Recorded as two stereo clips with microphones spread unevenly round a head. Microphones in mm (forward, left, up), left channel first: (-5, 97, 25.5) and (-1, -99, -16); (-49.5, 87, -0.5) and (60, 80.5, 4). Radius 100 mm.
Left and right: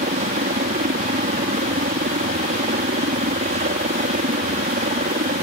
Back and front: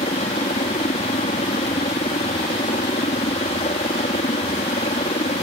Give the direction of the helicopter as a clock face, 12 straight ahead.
5 o'clock.